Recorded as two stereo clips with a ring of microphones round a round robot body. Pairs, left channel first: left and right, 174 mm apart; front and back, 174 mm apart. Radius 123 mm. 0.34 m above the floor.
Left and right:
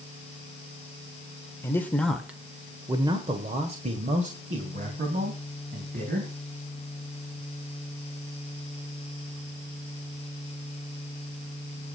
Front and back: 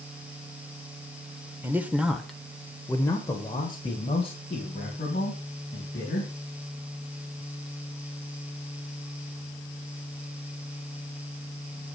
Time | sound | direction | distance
1.6 | a man speaking | 130° left | 1.3 m